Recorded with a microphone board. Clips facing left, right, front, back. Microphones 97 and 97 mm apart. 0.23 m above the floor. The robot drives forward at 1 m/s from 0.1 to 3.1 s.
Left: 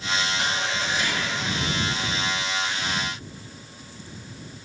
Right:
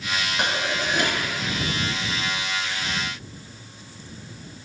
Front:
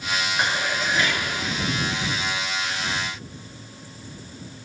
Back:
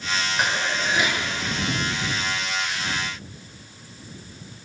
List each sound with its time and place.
0.4 s dishes clattering: 100° right, 2 m; by 1.3 s 120° right, 2.5 m